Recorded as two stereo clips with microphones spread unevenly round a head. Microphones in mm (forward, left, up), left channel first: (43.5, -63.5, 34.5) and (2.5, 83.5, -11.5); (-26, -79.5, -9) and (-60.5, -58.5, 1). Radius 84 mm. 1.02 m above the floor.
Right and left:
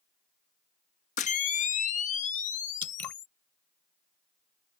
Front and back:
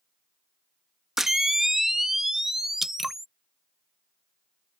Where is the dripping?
140° right.